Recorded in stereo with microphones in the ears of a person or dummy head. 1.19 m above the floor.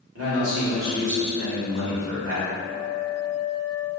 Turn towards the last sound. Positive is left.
turn(degrees=-70)  # may be behind; listen again after turning